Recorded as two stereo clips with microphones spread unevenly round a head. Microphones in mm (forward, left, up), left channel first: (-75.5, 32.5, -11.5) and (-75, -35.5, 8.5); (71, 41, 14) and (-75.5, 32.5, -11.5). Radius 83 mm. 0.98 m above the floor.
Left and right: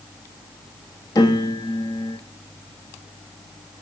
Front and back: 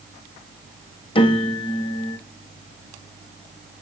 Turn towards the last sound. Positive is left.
turn(degrees=60)